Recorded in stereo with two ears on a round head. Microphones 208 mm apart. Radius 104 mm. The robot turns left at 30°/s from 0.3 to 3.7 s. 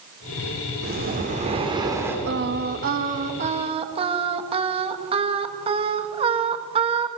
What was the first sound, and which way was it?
Breathing, 130° right.